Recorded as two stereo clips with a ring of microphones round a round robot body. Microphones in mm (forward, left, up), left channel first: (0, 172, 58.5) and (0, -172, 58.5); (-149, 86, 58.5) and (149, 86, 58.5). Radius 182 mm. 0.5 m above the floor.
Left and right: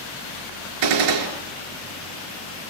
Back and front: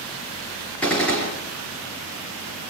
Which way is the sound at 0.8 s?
95° right.